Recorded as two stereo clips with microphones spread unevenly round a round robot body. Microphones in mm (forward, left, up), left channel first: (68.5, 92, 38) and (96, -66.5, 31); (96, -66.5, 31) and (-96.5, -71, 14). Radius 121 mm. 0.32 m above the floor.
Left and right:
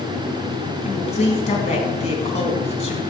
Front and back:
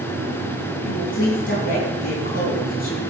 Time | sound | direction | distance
0.8 | a woman speaking | 55° left | 3.5 m